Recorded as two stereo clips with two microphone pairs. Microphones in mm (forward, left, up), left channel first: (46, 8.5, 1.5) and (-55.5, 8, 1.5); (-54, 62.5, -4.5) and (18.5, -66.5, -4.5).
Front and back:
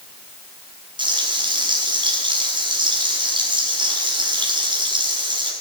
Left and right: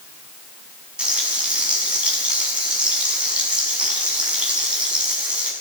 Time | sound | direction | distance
1.0 | frying | 145° right | 6 m